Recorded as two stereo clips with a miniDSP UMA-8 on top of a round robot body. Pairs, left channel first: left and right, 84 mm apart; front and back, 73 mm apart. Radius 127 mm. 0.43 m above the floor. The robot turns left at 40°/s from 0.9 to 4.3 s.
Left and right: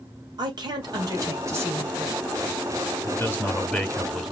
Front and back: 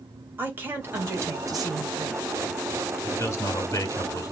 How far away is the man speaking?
About 2.0 m.